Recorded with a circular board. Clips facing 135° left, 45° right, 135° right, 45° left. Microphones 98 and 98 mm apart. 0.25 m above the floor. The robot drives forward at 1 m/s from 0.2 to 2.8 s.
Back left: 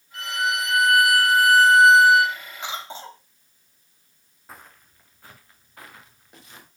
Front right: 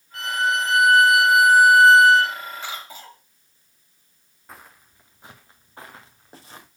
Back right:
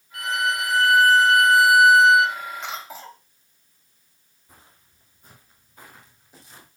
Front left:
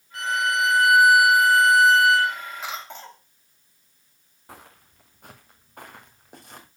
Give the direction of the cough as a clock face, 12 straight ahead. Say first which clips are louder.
Back left 2 dB, even; 8 o'clock.